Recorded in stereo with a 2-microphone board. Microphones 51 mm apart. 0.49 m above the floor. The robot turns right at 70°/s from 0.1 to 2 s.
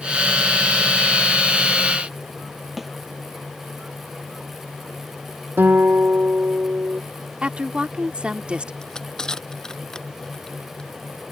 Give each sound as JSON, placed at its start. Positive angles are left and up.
{"t": 2.8, "sound": "a snare drum", "side_deg": 0}
{"t": 5.6, "sound": "a guitar", "side_deg": -45}
{"t": 7.4, "sound": "a woman speaking", "side_deg": -25}
{"t": 8.8, "sound": "crushing", "side_deg": 15}